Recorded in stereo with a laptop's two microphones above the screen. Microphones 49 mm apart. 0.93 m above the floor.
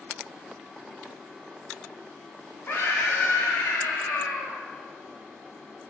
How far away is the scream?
About 3 m.